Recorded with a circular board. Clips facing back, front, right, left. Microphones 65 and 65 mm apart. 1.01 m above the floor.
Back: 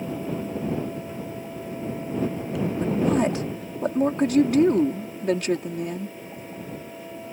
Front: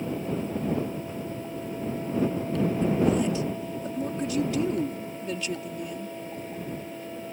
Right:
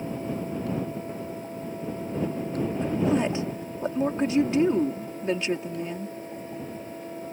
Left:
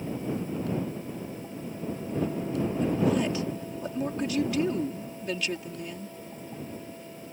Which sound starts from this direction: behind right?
A woman speaking, at 2.8 s.